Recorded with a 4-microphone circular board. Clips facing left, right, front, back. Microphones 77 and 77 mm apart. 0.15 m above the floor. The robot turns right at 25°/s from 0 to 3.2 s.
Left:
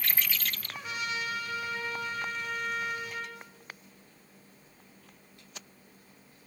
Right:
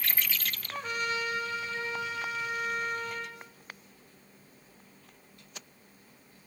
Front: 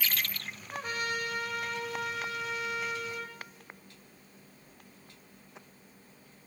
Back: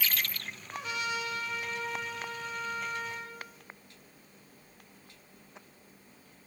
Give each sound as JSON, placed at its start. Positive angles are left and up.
{"t": 0.7, "sound": "a trumpet", "azimuth_deg": -50, "distance_m": 5.0}